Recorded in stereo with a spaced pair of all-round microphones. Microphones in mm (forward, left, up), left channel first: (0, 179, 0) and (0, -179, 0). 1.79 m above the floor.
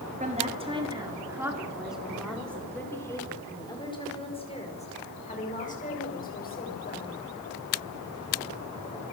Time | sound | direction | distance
0.2 | a woman speaking | 20° right (ahead or behind) | 3.5 m